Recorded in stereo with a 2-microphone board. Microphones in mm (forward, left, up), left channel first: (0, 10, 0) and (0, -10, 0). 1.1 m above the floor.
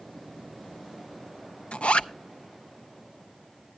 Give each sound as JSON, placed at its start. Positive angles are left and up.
{"t": 1.7, "sound": "a zipper", "side_deg": 60, "distance_m": 0.5}